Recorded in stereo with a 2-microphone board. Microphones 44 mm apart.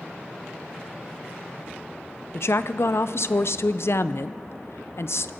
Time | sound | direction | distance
2.3 | a woman speaking | 70° left (ahead or behind) | 0.5 m